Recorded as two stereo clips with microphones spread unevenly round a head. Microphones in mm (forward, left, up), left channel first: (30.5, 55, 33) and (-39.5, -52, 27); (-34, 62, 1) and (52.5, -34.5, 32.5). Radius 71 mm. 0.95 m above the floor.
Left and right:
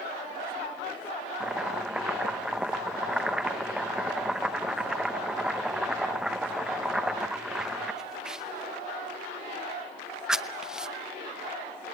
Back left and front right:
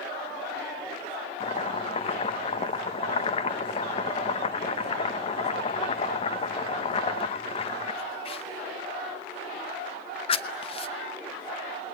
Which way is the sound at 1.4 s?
155° left.